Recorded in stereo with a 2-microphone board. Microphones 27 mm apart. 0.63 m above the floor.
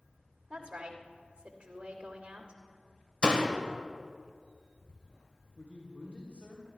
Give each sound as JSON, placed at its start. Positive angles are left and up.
{"t": 0.5, "sound": "a woman speaking", "side_deg": -35, "distance_m": 2.5}
{"t": 3.2, "sound": "a door slam", "side_deg": 30, "distance_m": 1.6}
{"t": 5.5, "sound": "a man speaking", "side_deg": 55, "distance_m": 3.0}